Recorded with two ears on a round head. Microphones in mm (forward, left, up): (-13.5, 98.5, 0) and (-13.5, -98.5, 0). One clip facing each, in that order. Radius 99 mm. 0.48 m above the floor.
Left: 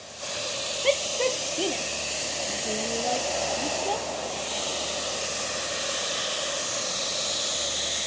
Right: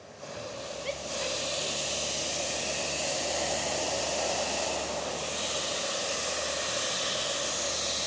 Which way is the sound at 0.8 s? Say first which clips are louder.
Left 12 dB; 70° left (ahead or behind).